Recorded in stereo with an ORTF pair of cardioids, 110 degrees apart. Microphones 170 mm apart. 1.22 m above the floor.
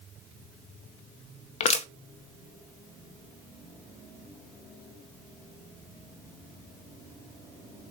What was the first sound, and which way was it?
Crushing, 40° left.